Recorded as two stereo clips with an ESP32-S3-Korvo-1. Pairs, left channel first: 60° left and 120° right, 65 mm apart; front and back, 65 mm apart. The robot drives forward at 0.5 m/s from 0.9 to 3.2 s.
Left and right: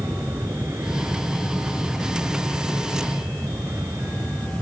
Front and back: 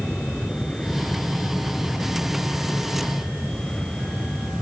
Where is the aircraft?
75° right.